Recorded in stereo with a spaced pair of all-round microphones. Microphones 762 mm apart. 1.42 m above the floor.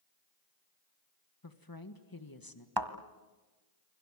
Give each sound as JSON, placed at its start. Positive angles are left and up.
{"t": 1.4, "sound": "a woman speaking", "side_deg": 25, "distance_m": 1.8}
{"t": 2.8, "sound": "a thud", "side_deg": -30, "distance_m": 1.5}